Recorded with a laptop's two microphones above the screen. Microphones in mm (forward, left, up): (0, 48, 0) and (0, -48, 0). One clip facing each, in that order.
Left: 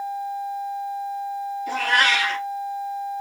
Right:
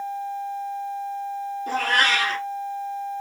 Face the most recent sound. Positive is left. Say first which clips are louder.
# left 1 dB
turn(degrees=-45)  # may be behind; listen again after turning